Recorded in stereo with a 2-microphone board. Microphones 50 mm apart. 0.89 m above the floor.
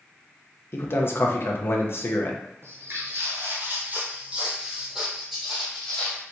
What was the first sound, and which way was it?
A man speaking, 50° left (ahead or behind).